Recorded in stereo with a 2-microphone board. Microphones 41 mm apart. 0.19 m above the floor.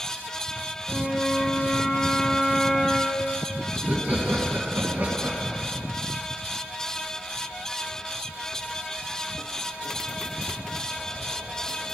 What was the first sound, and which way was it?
A flute, 20° left (ahead or behind).